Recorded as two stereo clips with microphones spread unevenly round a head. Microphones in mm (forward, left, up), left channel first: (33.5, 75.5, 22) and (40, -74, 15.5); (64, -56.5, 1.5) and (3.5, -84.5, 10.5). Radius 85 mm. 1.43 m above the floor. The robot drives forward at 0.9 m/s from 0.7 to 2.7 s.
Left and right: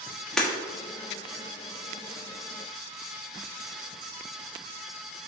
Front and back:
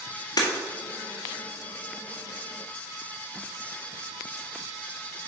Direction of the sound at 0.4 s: 5° left.